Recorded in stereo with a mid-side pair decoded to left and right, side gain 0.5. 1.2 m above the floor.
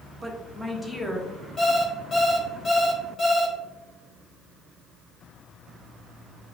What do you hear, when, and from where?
0.2 s a woman speaking: 15° right, 0.9 m; by 1.4 s 20° left, 1.3 m
1.6 s an alarm clock: 30° left, 1.5 m